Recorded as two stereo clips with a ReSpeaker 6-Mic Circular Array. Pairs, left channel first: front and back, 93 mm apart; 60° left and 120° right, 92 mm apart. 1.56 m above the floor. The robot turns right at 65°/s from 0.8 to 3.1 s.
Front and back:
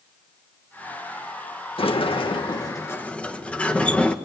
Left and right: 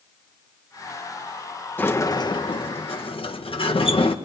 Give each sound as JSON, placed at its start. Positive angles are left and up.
{"t": 1.8, "sound": "a sliding door", "azimuth_deg": -10, "distance_m": 1.6}